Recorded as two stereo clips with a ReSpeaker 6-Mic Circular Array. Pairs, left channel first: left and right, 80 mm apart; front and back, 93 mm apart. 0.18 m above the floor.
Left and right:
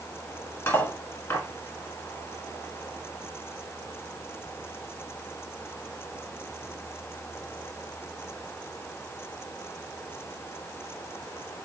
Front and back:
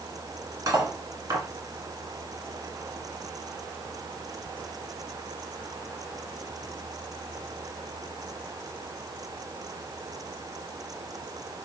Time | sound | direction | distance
0.7 | cutlery clinking | 140° left | 1.1 m